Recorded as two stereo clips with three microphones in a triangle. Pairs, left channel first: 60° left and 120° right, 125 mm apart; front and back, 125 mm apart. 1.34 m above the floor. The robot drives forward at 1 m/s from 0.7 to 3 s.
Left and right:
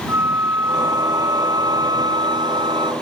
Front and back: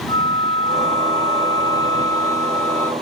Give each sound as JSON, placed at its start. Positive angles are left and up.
{"t": 0.1, "sound": "a flute", "azimuth_deg": -50}